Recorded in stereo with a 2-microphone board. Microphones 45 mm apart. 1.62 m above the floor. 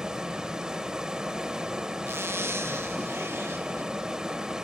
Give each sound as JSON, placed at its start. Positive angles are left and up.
{"t": 0.0, "sound": "running water", "side_deg": -15, "distance_m": 1.4}
{"t": 2.1, "sound": "a zipper", "side_deg": -65, "distance_m": 0.7}